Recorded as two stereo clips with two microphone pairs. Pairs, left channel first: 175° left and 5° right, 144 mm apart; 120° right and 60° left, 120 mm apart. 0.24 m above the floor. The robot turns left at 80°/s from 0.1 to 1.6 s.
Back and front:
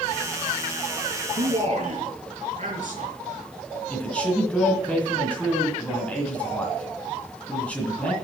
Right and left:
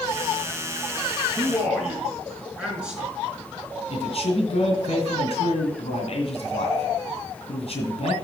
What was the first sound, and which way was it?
A man speaking, straight ahead.